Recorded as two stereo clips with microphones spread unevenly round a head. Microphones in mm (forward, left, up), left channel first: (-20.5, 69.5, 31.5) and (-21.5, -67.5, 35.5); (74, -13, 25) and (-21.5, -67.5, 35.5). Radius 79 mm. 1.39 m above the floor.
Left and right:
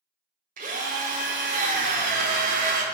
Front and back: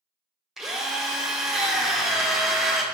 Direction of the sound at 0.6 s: 70° right.